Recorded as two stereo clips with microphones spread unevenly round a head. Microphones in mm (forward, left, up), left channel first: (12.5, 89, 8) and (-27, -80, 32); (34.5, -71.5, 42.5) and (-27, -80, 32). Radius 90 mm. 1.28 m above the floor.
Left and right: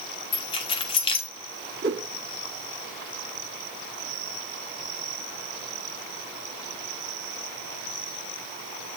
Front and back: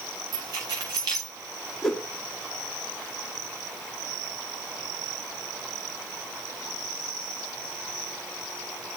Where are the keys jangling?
140° left, 1.3 m.